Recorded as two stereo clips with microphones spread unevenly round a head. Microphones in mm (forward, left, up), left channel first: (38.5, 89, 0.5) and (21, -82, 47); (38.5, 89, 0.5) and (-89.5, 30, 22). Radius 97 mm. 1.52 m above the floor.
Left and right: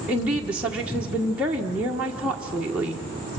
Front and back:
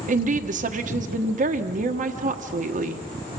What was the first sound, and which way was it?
A woman speaking, straight behind.